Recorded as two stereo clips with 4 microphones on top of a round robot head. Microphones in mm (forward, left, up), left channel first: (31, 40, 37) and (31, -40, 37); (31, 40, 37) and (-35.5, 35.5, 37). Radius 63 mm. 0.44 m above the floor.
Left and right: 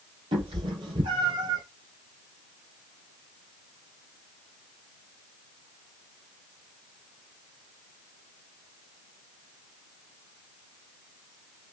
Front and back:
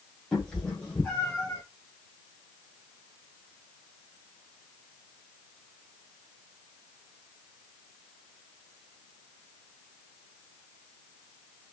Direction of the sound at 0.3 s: 80° right.